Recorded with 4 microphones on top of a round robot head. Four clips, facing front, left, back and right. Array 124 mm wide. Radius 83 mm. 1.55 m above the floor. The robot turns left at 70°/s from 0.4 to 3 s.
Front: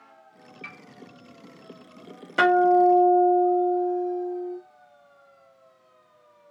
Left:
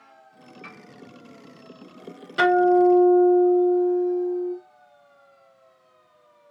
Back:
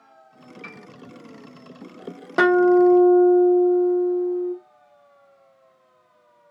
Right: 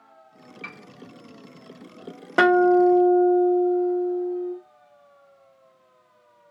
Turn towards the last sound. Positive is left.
turn(degrees=-175)